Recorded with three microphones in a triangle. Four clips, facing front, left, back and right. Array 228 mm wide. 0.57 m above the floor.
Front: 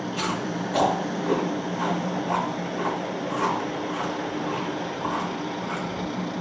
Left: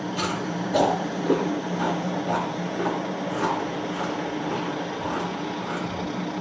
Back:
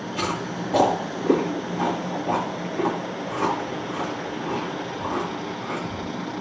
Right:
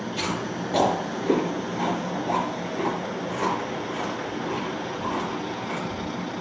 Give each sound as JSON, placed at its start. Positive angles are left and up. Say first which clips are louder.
{"t": 0.1, "sound": "chewing", "louder": "left 1 dB, back 2 dB", "azimuth_deg": -170, "distance_m": 3.5}